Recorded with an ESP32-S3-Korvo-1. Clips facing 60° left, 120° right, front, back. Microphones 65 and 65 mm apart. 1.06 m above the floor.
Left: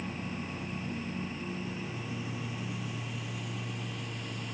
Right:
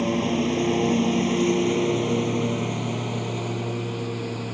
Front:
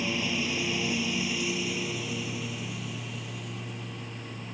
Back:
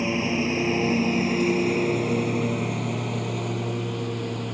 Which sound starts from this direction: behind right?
A lawn mower, at 0.0 s.